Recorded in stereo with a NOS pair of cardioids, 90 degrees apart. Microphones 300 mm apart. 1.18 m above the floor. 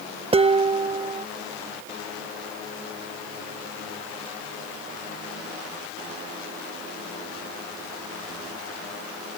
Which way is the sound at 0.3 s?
20° right.